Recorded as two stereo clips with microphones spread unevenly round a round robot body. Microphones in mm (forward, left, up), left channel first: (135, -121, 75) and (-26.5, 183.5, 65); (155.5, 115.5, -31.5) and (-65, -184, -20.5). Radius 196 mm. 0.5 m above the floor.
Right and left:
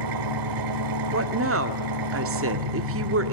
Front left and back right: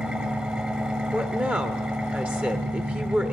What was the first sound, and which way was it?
An engine running, 145° left.